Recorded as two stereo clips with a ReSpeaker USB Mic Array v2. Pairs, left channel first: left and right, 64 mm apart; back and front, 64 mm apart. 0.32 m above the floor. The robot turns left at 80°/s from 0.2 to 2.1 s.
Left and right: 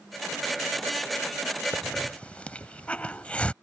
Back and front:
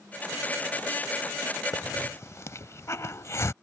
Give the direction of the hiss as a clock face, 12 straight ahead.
6 o'clock.